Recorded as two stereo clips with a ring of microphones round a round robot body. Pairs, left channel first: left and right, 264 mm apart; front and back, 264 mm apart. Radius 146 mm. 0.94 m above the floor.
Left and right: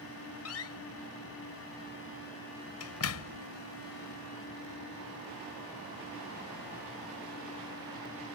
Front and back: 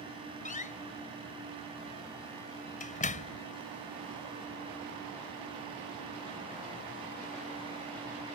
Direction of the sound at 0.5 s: 60° left.